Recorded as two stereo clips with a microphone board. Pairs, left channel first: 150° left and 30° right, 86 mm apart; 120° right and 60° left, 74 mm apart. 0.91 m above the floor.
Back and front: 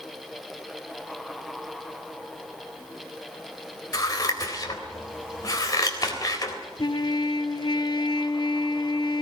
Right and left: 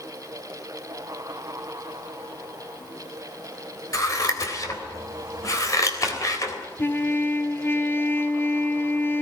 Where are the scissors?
165° right, 3.5 m.